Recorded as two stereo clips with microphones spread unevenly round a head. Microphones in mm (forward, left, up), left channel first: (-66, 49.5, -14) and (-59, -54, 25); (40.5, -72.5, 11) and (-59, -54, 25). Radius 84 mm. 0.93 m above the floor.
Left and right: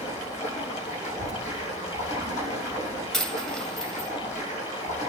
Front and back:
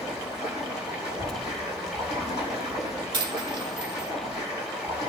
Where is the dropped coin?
170° right, 1.3 m.